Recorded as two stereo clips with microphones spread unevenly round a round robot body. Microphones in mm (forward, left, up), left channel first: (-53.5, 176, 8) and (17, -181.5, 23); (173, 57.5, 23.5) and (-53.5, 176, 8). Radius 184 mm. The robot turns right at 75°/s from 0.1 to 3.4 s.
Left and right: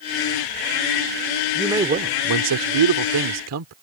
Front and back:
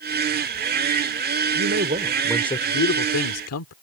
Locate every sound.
1.6 s a man speaking: 170° right; by 3.7 s 35° right